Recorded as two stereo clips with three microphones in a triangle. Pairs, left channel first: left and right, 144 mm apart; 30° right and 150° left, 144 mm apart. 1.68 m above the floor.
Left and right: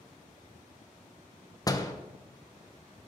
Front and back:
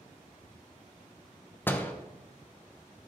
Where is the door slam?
40° left, 0.8 m.